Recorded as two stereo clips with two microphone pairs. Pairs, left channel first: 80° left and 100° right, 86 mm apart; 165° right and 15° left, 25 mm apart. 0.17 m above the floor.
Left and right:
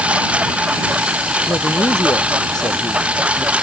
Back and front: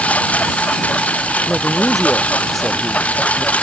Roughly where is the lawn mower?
Behind.